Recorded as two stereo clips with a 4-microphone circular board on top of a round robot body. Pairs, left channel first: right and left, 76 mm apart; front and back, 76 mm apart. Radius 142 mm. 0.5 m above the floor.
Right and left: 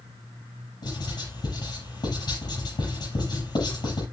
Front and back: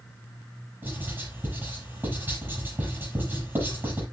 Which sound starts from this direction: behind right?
Writing, at 0.8 s.